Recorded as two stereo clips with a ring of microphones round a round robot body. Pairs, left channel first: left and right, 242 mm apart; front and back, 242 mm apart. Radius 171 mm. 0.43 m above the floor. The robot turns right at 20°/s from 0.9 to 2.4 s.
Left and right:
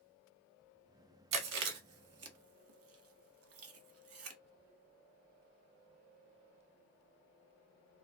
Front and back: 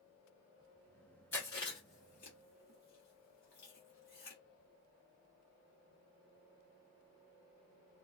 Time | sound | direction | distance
1.3 | chewing | 85° right | 0.7 m